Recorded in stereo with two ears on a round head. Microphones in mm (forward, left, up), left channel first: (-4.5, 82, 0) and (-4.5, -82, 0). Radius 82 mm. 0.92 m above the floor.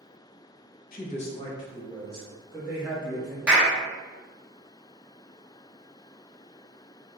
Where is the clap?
5° right (ahead or behind), 0.9 m.